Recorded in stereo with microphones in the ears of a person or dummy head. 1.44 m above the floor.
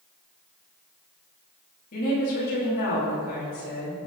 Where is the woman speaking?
45° left (ahead or behind), 2.5 m.